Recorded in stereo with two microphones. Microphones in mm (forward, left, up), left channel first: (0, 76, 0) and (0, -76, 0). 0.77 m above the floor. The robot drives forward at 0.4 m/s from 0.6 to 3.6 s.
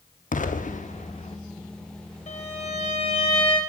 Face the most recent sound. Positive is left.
turn(degrees=35)  # may be behind; listen again after turning